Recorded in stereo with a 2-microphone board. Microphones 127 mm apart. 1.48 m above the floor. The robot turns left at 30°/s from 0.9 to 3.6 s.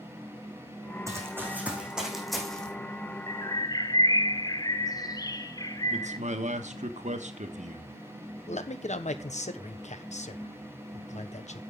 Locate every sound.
1.1 s running footsteps: 25° right (ahead or behind), 3.5 m; by 2.7 s 5° left (ahead or behind), 3 m
3.3 s a bird: 30° left (ahead or behind), 0.7 m
5.9 s a man speaking: 80° right, 1.3 m
8.5 s a man speaking: 75° left (ahead or behind), 1.1 m